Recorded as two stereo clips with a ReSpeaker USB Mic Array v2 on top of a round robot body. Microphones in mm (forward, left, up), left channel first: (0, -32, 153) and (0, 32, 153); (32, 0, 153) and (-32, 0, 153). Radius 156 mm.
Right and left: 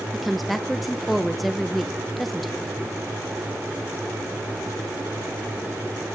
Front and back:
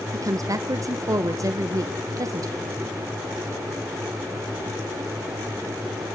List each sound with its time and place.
0.1 s a woman speaking: straight behind, 1.3 m